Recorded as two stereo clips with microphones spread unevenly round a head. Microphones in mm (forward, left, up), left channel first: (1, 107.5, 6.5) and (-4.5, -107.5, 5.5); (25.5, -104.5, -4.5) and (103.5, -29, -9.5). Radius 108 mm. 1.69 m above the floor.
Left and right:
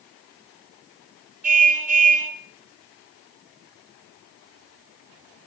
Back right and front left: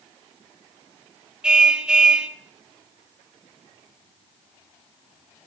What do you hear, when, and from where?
1.4 s a car horn: 40° right, 3 m